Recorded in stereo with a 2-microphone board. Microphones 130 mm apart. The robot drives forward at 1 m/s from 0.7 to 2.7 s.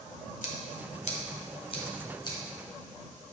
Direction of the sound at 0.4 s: 75° left (ahead or behind).